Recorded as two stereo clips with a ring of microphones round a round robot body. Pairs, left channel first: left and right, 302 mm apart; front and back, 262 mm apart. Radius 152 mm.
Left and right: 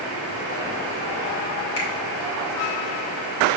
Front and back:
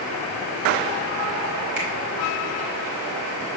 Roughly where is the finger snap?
Behind left.